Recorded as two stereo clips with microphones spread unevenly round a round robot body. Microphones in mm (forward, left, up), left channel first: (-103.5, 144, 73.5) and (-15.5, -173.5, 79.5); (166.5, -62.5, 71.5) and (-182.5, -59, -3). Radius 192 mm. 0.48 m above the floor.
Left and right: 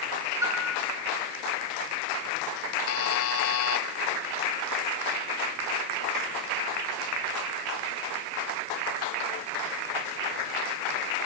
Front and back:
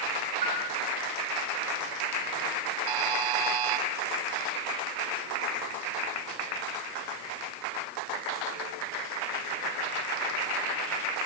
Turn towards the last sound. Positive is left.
turn(degrees=155)